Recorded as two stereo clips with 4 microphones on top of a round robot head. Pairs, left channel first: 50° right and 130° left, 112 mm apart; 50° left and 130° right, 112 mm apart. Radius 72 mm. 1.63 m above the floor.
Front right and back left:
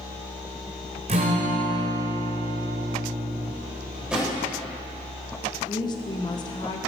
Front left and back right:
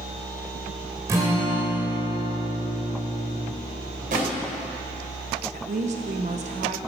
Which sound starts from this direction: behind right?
A drawer, at 3.9 s.